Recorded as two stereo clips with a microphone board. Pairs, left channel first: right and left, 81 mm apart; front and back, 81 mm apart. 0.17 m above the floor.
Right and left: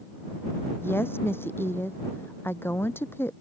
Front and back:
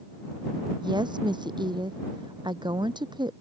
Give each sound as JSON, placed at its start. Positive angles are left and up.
{"t": 0.8, "sound": "a woman speaking", "azimuth_deg": -155}